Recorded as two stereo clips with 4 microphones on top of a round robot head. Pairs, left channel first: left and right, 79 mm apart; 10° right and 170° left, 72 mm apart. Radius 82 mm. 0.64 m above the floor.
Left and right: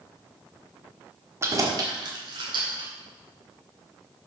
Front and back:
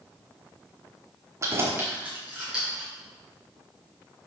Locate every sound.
1.4 s keys jangling: 145° right, 1.2 m; by 2.9 s 105° right, 2.5 m